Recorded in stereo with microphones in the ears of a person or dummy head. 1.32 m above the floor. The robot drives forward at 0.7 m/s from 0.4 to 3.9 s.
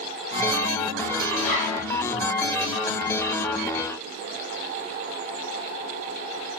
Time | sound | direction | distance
1.4 | a zipper | 55° left (ahead or behind) | 9.5 m